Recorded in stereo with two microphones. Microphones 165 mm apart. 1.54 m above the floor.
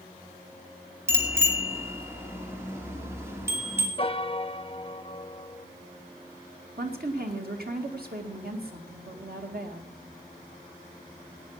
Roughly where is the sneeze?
I don't hear a sneeze.